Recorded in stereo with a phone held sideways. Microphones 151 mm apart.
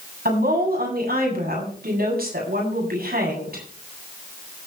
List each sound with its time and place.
0.2 s a woman speaking: 85° right, 8 m